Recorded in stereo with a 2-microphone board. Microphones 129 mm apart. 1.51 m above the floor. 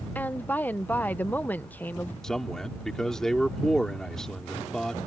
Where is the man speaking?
5° left (ahead or behind).